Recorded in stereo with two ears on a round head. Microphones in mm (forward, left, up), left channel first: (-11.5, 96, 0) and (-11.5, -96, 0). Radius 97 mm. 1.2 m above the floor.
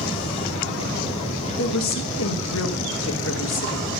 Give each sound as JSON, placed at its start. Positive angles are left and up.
{"t": 1.6, "sound": "a woman speaking", "side_deg": 60, "distance_m": 1.4}